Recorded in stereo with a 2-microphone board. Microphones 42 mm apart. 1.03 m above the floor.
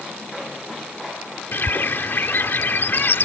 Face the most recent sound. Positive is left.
turn(degrees=60)  # may be behind; listen again after turning